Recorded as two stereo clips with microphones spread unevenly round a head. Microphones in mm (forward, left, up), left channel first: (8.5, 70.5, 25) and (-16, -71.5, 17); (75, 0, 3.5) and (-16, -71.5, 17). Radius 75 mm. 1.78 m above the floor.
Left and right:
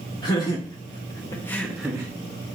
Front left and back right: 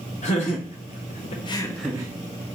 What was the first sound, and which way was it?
Laughter, 20° left.